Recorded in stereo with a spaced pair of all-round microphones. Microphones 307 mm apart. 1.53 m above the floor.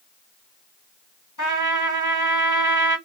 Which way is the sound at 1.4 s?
70° left (ahead or behind).